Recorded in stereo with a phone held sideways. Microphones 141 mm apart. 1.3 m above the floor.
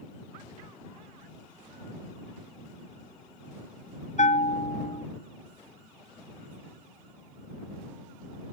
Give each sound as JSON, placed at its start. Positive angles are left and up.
{"t": 4.2, "sound": "a bell", "side_deg": 55}